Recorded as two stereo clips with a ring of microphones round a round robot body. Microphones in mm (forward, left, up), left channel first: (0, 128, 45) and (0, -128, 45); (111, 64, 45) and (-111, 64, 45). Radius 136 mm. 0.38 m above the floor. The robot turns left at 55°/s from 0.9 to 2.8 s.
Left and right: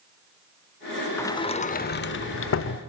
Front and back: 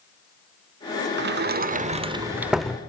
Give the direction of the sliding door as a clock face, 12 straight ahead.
6 o'clock.